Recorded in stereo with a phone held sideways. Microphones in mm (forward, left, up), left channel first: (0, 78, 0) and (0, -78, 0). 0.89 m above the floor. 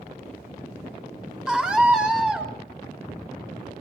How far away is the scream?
About 4 m.